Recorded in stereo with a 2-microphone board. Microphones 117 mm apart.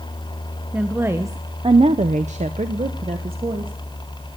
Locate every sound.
0.7 s a woman speaking: 10° right (ahead or behind), 0.9 m; by 3.7 s 50° right (ahead or behind), 1.2 m